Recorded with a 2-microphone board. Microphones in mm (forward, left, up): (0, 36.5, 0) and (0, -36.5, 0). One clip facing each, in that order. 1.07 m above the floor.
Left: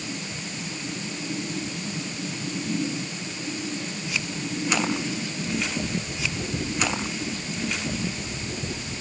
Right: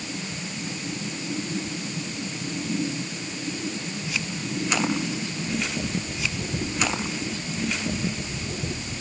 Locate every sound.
Only background noise.